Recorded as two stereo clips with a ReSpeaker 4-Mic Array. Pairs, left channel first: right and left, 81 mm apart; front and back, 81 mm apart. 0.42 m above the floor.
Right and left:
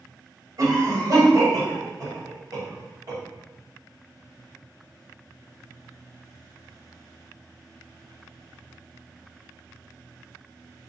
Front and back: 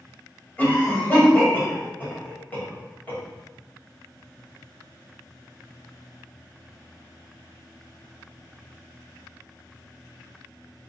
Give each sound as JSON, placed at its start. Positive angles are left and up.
{"t": 0.6, "sound": "a cough", "azimuth_deg": 65, "distance_m": 1.7}